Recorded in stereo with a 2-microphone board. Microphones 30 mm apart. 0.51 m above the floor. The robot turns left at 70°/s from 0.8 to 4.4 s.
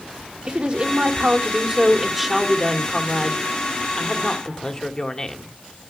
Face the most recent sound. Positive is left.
turn(degrees=35)